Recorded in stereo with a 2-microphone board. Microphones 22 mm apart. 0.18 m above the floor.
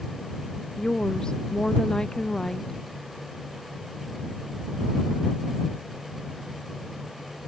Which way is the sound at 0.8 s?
40° left (ahead or behind).